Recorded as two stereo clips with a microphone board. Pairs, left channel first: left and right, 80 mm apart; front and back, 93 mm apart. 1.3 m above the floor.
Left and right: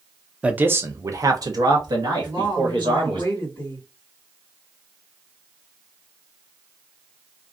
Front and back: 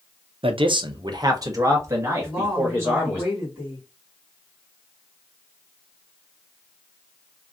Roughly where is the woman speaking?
Right.